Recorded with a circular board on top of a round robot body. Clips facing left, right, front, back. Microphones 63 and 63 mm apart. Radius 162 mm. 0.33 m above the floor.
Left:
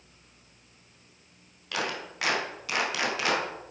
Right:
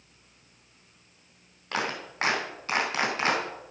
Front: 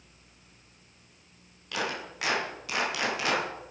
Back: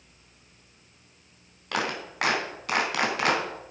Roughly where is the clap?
Behind right.